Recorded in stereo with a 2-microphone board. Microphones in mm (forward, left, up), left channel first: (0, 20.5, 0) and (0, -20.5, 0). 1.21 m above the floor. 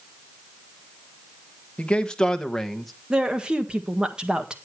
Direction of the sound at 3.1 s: 20° right (ahead or behind).